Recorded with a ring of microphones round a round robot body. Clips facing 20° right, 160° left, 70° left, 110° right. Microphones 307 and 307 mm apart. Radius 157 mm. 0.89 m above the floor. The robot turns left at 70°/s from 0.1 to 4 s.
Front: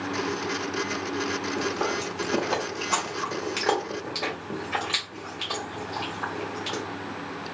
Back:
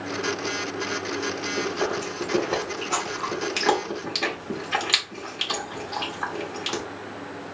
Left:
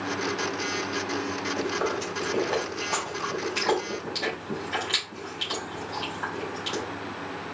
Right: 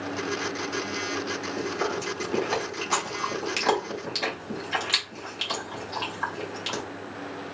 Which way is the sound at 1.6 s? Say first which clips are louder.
Back 4 dB, left 1 dB; 5° right.